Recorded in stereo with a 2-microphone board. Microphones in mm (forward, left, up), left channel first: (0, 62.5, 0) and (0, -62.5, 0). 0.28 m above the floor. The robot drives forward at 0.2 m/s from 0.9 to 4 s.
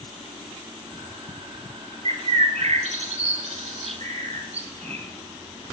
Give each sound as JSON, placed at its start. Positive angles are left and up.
{"t": 2.0, "sound": "a bird", "side_deg": -70, "distance_m": 0.9}